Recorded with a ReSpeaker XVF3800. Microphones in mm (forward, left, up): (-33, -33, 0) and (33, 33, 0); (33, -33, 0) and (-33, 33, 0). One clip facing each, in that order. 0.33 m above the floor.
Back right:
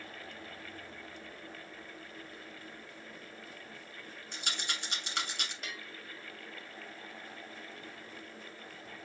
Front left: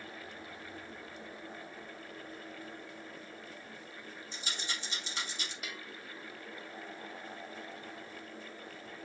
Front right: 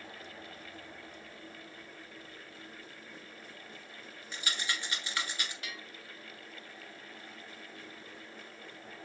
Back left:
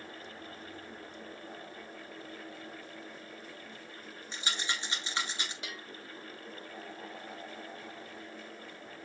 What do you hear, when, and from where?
4.3 s a rattle: 160° right, 1.6 m
5.6 s a bell: 120° left, 0.9 m